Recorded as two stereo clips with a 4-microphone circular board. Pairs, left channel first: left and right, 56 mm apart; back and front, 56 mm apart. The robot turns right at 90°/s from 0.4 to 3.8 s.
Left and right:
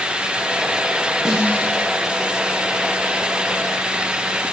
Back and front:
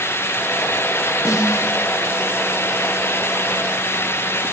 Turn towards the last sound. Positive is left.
turn(degrees=55)